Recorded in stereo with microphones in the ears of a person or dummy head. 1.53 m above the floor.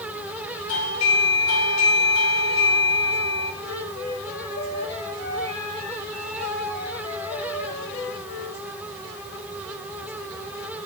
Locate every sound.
0.7 s a doorbell: 80° left, 5.5 m
3.6 s a flute: 50° left (ahead or behind), 7.5 m